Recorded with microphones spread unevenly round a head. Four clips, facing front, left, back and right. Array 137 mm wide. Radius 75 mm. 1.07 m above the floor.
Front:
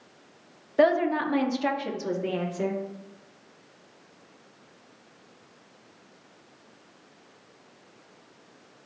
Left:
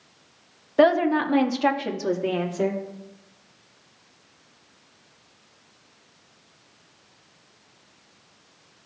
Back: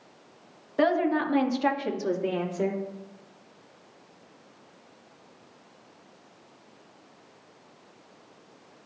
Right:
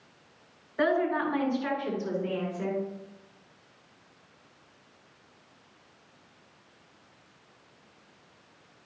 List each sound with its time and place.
0.8 s a woman speaking: 65° left, 1.0 m; by 2.8 s 80° left, 3 m